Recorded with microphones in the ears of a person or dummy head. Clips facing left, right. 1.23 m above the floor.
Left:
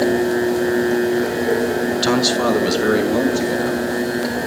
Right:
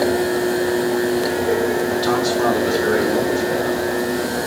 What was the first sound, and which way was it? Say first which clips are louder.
A man speaking: left 1 dB; 30° left (ahead or behind).